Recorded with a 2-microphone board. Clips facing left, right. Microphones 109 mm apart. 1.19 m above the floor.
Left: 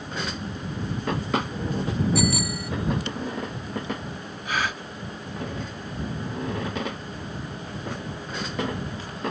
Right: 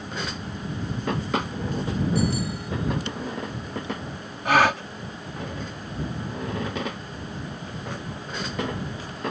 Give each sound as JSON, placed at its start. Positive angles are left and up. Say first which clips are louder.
{"t": 2.1, "sound": "a bicycle bell", "louder": "left 1 dB", "side_deg": 90}
{"t": 4.5, "sound": "a gasp", "louder": "right 9 dB", "side_deg": -80}